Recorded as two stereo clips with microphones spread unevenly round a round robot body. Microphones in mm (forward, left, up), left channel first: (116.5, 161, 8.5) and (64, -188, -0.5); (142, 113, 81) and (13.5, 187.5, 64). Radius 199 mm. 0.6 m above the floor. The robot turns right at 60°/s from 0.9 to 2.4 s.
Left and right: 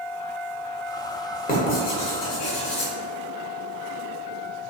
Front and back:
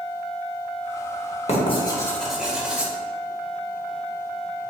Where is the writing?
15° left, 1.3 m; by 2.9 s 70° left, 1.3 m.